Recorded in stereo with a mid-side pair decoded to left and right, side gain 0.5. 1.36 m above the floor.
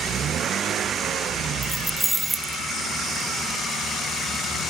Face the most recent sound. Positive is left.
turn(degrees=-10)